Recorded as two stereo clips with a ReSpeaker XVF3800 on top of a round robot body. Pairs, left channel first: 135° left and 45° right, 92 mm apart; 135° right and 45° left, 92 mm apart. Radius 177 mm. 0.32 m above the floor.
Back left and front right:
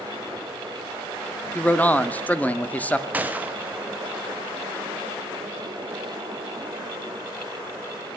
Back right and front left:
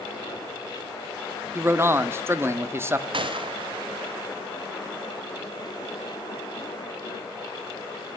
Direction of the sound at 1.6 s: 75° left.